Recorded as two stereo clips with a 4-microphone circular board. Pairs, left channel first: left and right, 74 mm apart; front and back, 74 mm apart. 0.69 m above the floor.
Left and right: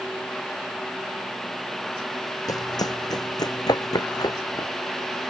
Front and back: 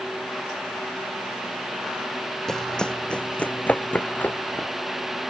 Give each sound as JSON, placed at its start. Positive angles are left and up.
{"t": 2.5, "sound": "running footsteps", "azimuth_deg": 80}